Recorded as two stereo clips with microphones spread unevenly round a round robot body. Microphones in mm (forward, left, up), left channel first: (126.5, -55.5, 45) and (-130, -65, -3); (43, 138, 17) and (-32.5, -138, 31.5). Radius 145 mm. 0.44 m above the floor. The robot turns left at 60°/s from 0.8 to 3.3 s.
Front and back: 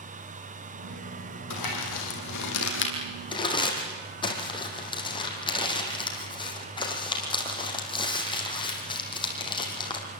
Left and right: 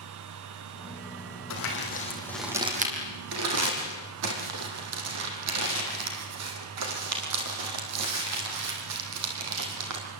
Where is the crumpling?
40° left, 5.5 m; by 10.1 s 70° right, 5.5 m.